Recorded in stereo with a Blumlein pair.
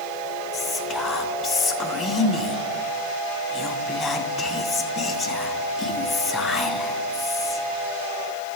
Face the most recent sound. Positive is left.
turn(degrees=20)